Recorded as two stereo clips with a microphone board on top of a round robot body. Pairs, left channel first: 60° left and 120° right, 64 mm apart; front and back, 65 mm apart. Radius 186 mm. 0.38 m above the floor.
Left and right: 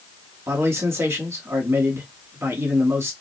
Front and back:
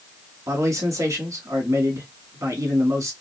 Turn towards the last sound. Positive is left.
turn(degrees=-160)